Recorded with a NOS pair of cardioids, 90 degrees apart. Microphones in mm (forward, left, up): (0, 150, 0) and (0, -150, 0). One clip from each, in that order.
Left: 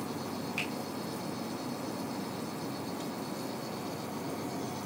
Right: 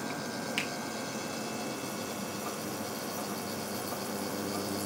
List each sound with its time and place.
0.6 s a finger snap: 55° right, 1.8 m